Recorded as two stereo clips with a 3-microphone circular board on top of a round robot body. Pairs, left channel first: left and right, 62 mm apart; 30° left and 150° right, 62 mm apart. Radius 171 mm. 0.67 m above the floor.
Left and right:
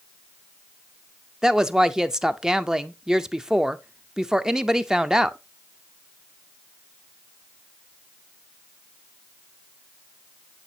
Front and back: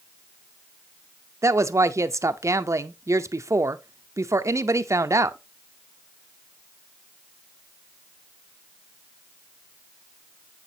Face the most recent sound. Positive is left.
turn(degrees=-170)